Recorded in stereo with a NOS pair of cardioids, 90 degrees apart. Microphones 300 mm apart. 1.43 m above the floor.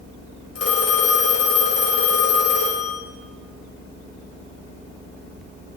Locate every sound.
0.6 s a phone ringing: 55° left, 3.5 m